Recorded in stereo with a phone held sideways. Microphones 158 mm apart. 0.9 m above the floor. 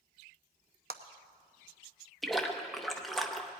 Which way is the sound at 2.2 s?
Centre (ahead or behind).